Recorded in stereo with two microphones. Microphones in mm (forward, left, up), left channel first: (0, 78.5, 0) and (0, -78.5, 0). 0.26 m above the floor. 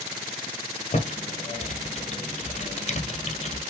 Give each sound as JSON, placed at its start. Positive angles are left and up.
{"t": 0.9, "sound": "typing on a keyboard", "side_deg": 45, "distance_m": 1.6}